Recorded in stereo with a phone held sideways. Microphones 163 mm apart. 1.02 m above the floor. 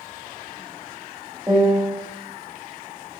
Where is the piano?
20° right (ahead or behind), 0.9 m.